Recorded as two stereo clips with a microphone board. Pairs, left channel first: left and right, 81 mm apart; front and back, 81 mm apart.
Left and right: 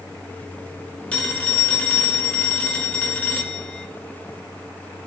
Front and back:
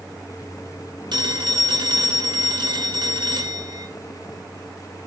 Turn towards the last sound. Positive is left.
turn(degrees=165)